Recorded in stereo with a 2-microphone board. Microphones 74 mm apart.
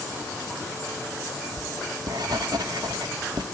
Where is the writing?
65° right (ahead or behind), 1.2 m.